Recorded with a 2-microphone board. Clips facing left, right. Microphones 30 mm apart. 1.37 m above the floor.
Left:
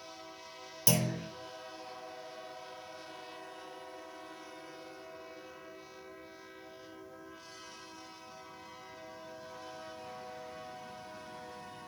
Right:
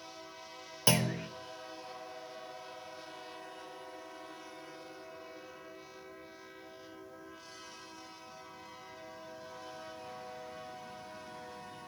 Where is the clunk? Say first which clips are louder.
Right 2 dB; 35° right (ahead or behind), 0.6 m.